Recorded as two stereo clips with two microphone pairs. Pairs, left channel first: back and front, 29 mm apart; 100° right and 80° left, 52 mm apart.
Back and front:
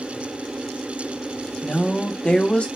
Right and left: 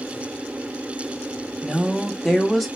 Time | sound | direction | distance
1.6 | a woman speaking | 170° left | 0.8 m